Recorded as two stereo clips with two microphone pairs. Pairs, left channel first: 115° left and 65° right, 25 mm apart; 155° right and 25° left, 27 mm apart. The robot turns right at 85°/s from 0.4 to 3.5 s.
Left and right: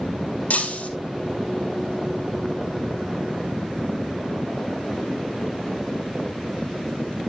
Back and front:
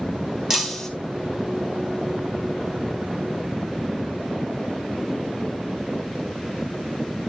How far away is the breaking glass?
About 2 m.